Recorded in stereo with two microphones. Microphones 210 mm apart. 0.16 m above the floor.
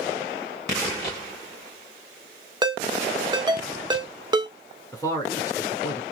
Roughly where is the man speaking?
Centre.